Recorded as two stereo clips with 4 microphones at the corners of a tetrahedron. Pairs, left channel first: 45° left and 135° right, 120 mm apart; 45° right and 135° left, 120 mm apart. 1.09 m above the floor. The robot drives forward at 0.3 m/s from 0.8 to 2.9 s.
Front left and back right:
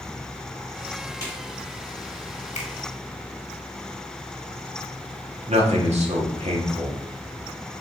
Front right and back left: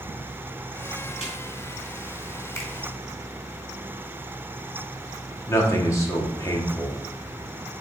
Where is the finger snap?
20° left, 1.8 m.